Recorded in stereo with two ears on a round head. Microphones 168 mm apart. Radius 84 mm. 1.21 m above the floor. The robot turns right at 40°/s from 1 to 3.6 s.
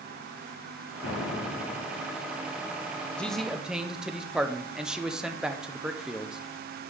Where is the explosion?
100° left, 1.1 m; by 2.1 s 140° left, 1.1 m.